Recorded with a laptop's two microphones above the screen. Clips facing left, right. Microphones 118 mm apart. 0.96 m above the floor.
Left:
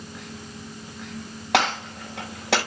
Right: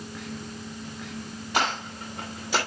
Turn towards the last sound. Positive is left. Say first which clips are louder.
# left 5 dB
turn(degrees=80)